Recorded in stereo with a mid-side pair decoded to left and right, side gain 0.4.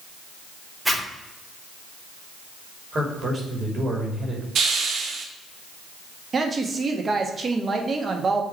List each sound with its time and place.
0.8 s a zipper: 5° right, 2 m
2.9 s a man speaking: 50° right, 2.5 m
4.5 s a hiss: 65° right, 1.3 m
6.3 s a woman speaking: 45° right, 1.5 m